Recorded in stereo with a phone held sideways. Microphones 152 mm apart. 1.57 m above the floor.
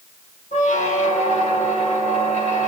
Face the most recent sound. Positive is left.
turn(degrees=50)  # may be behind; listen again after turning